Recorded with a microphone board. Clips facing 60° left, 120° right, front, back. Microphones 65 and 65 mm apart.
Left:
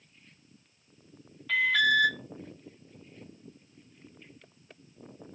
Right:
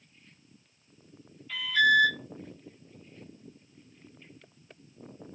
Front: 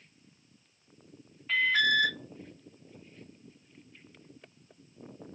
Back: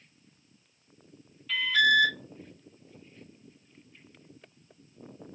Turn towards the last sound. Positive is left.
turn(degrees=55)